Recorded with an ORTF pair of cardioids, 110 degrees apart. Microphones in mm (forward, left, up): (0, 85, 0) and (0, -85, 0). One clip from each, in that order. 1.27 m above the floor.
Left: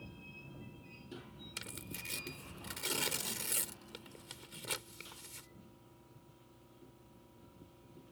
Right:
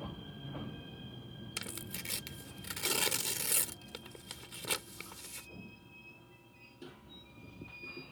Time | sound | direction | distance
1.6 | tearing paper | 25° right | ?